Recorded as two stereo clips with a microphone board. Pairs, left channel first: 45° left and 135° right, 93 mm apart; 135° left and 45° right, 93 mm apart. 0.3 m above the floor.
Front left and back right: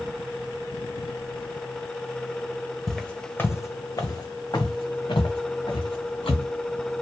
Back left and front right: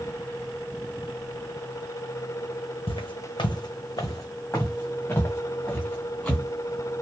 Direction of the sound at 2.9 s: 130° left.